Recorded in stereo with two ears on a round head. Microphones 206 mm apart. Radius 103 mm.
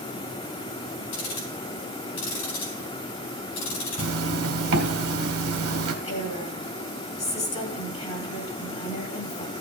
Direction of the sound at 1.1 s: 75° left (ahead or behind).